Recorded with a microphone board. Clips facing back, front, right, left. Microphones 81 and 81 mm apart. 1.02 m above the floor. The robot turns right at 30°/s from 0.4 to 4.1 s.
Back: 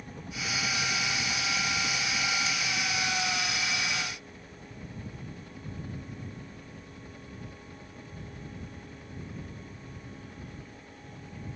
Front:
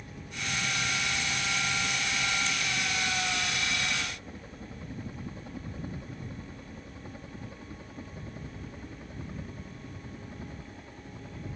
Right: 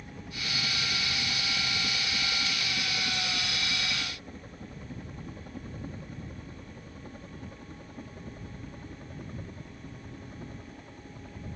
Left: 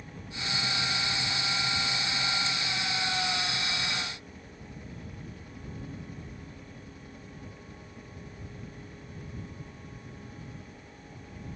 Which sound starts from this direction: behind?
A helicopter, at 0.0 s.